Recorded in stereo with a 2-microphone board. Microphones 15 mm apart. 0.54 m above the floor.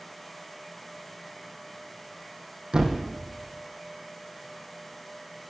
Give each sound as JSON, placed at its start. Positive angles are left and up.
{"t": 2.7, "sound": "a thud", "side_deg": -75, "distance_m": 1.8}